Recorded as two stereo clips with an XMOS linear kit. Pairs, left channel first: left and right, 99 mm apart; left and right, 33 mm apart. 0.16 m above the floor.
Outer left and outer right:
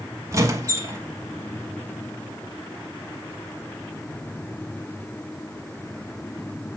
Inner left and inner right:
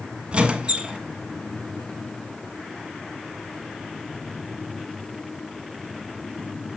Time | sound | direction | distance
0.3 | a squeak | 30° right (ahead or behind) | 0.9 m